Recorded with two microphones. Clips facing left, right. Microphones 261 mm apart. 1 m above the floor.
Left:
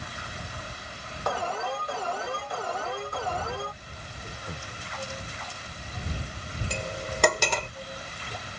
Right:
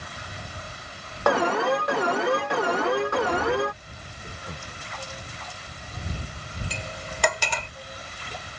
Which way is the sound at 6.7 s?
50° left (ahead or behind).